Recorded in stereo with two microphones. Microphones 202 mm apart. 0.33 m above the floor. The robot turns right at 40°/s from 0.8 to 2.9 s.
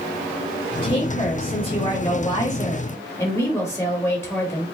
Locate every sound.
0.8 s a woman speaking: 25° left (ahead or behind), 1.3 m; by 4.6 s 15° left (ahead or behind), 1.3 m